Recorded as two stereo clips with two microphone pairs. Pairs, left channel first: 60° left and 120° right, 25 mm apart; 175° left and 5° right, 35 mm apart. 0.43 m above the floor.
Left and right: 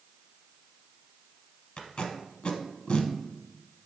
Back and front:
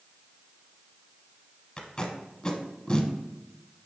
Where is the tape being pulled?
105° left, 0.7 m.